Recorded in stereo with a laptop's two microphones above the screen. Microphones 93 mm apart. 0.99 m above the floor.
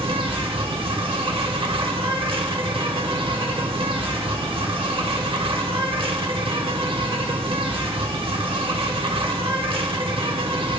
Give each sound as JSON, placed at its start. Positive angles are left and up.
{"t": 0.0, "sound": "an insect", "side_deg": -75, "distance_m": 1.1}